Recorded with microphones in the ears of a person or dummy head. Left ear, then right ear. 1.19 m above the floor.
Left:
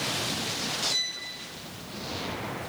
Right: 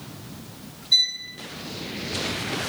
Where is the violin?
75° right (ahead or behind), 5 m.